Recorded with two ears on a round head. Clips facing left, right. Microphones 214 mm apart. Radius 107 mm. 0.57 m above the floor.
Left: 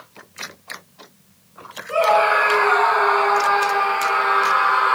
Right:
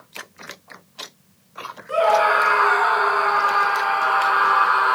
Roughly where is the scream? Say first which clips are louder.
Left 1 dB; right.